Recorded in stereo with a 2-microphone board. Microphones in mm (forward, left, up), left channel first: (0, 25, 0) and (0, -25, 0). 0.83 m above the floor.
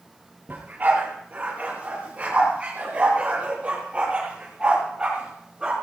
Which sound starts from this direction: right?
A dog barking, at 0.5 s.